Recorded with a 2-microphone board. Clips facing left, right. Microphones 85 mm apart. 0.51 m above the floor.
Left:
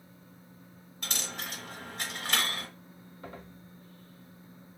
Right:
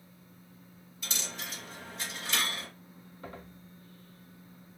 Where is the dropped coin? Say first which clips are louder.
Left 2 dB; 65° left (ahead or behind), 0.7 m.